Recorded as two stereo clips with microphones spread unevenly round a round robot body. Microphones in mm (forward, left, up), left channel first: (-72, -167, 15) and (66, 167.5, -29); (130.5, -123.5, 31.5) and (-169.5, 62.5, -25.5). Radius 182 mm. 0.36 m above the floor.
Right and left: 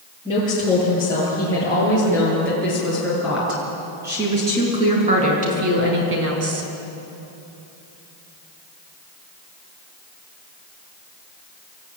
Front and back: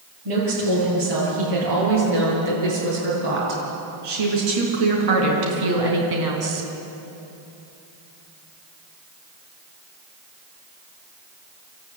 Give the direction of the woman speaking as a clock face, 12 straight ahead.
6 o'clock.